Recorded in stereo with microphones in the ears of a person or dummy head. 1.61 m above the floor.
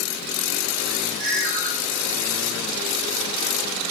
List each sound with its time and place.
1.2 s a ringtone: 50° right (ahead or behind), 3 m